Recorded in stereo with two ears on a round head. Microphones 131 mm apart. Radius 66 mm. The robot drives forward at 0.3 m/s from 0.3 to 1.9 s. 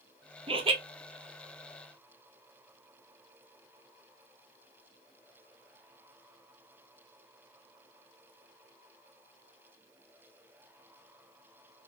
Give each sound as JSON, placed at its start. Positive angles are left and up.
{"t": 0.5, "sound": "laughter", "side_deg": -35, "distance_m": 0.5}